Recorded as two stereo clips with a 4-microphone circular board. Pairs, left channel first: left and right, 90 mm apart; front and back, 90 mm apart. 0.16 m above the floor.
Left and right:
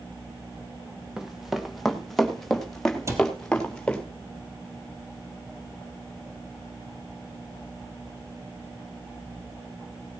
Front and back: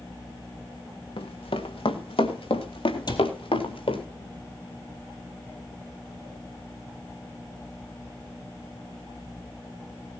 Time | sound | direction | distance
1.2 | running footsteps | 5° right | 2.5 m
3.1 | a cupboard door | 35° right | 2.5 m